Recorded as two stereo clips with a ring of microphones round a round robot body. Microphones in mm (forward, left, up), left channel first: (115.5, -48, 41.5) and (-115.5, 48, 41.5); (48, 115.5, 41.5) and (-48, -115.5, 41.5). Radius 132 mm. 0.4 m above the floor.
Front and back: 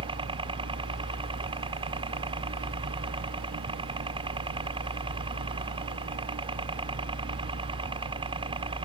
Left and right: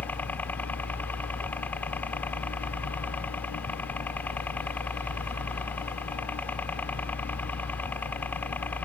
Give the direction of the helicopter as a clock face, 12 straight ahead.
7 o'clock.